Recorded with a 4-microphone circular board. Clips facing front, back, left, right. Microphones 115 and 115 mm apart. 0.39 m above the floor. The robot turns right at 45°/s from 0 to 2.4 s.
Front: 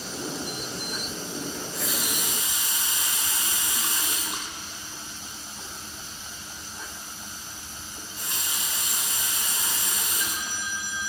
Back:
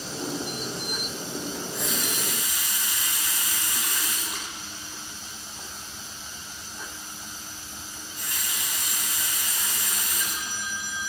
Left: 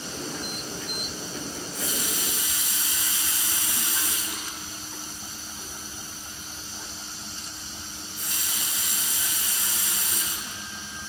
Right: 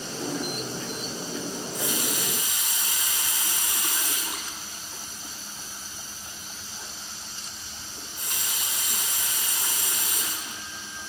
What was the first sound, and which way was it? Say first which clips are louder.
A running tap: back 1 dB, right 2 dB; 100° right.